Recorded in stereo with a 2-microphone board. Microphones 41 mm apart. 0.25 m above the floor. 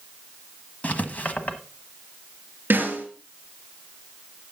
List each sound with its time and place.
0.8 s writing: 40° left (ahead or behind), 1.3 m
2.7 s a snare drum: 50° right (ahead or behind), 5 m